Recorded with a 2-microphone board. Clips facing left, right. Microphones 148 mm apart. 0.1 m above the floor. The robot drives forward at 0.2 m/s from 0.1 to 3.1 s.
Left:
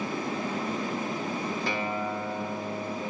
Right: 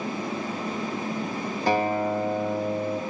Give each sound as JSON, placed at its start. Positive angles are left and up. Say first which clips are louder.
{"t": 1.7, "sound": "a guitar", "louder": "right 7 dB", "side_deg": -45, "distance_m": 0.6}